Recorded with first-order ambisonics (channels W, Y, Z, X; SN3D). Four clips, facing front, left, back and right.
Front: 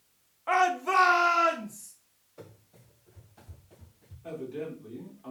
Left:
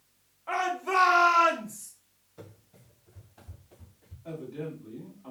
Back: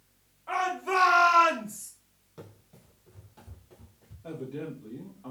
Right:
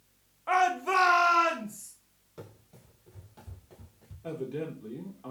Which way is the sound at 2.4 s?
135° right.